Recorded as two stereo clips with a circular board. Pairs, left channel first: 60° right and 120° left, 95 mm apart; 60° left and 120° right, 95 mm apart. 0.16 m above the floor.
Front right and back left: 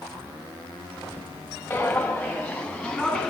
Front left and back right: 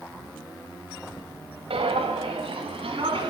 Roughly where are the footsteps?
Behind right.